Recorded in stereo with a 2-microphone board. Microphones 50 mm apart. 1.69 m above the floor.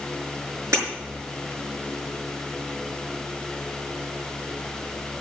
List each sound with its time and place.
0.7 s breaking glass: 75° right (ahead or behind), 5.5 m